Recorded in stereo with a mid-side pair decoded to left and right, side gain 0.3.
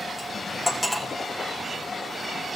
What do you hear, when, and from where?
0.2 s cutlery clinking: 20° left, 3.5 m